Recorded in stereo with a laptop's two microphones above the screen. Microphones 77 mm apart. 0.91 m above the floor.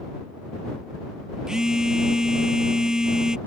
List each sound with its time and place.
1.5 s a phone buzzing: 10° right (ahead or behind)